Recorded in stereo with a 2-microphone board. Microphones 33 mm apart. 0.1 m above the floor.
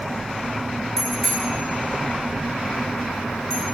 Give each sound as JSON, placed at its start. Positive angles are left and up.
{"t": 1.0, "sound": "a bicycle bell", "side_deg": 15, "distance_m": 6.5}